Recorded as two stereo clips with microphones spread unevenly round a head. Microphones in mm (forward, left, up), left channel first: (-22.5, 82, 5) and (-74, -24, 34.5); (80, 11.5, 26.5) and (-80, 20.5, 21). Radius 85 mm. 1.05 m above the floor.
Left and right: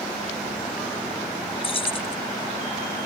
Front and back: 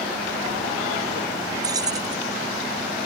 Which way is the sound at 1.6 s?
110° left.